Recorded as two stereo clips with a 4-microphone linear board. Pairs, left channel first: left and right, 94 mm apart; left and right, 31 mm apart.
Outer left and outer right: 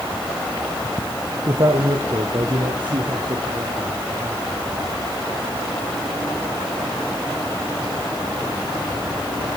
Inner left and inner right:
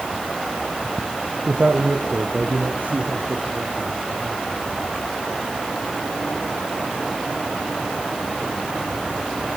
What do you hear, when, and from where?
1.5 s a man speaking: 60° right (ahead or behind), 3 m; by 4.4 s 45° right (ahead or behind), 3.5 m